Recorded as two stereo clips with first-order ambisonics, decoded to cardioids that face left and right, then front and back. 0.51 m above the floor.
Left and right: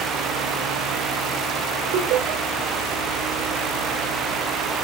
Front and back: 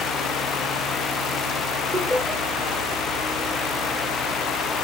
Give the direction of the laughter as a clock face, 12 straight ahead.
4 o'clock.